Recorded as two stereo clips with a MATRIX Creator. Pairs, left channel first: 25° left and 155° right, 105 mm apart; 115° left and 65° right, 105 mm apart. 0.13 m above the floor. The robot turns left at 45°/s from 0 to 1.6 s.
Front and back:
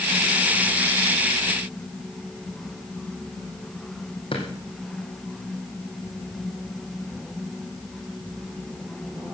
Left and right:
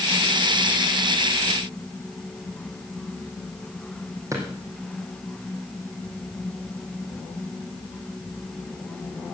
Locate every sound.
4.3 s a drawer: 10° right, 4 m